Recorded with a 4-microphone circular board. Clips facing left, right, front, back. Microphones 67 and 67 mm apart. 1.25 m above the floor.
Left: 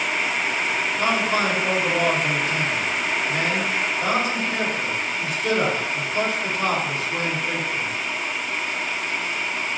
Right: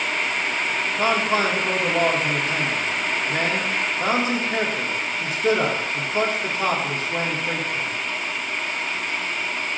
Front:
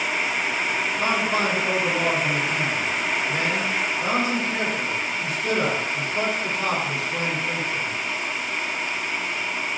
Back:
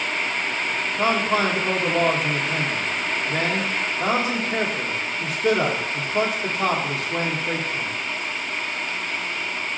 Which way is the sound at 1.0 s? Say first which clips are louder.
Right 2 dB, back 4 dB; 145° right.